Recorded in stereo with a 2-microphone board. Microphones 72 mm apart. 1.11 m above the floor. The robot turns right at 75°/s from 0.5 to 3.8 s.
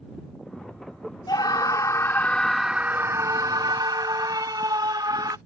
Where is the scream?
85° left; by 5.4 s 85° right.